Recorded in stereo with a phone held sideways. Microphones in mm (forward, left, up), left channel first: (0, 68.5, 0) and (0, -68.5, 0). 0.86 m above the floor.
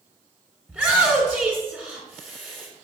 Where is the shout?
10° right (ahead or behind), 3 m.